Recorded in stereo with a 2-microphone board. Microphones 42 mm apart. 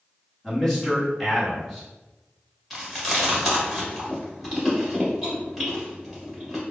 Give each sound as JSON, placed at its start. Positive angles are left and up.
{"t": 0.4, "sound": "a man speaking", "side_deg": 10, "distance_m": 1.2}
{"t": 2.7, "sound": "chewing", "side_deg": 0, "distance_m": 1.3}